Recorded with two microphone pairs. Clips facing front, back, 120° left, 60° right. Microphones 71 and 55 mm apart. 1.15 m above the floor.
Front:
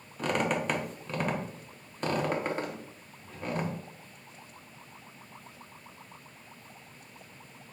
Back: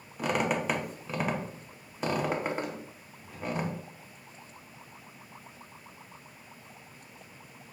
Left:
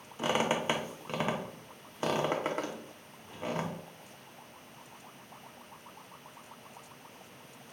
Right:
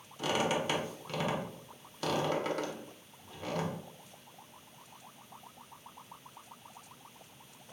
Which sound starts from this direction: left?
A squeak, at 0.2 s.